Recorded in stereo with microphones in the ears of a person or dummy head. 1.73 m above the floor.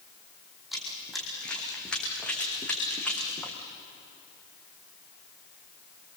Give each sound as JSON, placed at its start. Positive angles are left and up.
{"t": 0.7, "sound": "running footsteps", "side_deg": 0, "distance_m": 3.0}